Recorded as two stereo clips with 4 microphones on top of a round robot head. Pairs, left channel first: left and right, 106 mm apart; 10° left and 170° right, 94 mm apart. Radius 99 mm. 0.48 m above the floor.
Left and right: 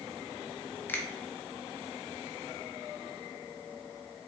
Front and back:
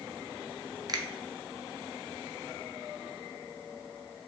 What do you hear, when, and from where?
0.9 s a finger snap: 155° left, 0.7 m